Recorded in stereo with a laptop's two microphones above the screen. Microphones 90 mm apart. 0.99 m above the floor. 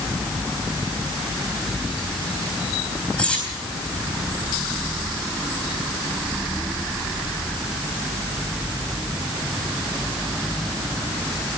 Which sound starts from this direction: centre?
Cutlery clinking, at 3.2 s.